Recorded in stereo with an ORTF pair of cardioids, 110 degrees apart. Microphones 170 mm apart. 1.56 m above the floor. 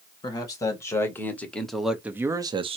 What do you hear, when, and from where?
0.2 s a man speaking: 20° left, 1.7 m; by 2.8 s 35° right, 0.7 m